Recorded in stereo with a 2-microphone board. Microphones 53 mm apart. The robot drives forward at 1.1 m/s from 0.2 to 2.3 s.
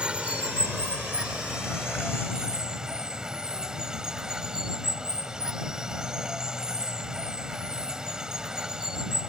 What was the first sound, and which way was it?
Running water, 20° right (ahead or behind).